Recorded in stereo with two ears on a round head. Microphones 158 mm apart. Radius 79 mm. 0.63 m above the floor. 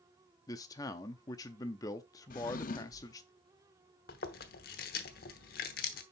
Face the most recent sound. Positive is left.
turn(degrees=60)  # may be behind; listen again after turning